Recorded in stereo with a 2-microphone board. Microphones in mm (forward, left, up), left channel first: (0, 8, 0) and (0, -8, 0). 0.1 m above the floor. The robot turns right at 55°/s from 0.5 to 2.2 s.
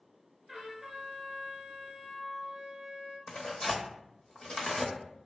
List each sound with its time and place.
0.5 s a trumpet: 25° right (ahead or behind), 1.3 m; by 3.2 s 15° right (ahead or behind), 1.3 m
3.3 s tearing paper: 60° left (ahead or behind), 0.7 m